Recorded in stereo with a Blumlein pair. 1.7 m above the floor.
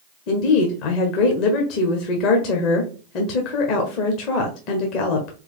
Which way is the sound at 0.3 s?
40° left.